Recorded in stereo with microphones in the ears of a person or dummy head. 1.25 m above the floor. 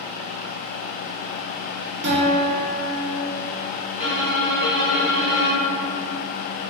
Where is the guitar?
55° right (ahead or behind), 0.7 m.